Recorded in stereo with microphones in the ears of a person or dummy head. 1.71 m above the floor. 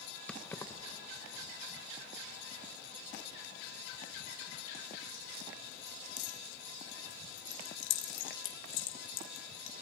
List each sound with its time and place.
0.3 s keys jangling: 5° left (ahead or behind), 1.3 m; by 9.7 s 80° left, 6.5 m